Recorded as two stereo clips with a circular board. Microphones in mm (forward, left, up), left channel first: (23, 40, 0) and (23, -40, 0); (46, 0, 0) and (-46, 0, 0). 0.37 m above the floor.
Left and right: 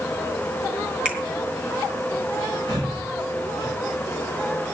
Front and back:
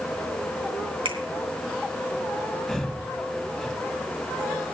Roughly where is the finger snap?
Behind.